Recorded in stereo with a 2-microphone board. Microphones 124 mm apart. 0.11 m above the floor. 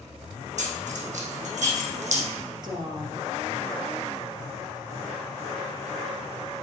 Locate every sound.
0.6 s keys jangling: 75° right (ahead or behind), 4 m; by 2.2 s 70° right (ahead or behind), 3 m
2.6 s a woman speaking: 35° right (ahead or behind), 2.5 m